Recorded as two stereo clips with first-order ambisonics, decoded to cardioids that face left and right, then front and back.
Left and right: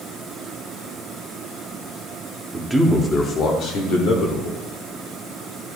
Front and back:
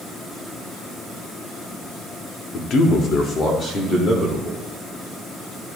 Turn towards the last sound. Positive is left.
turn(degrees=75)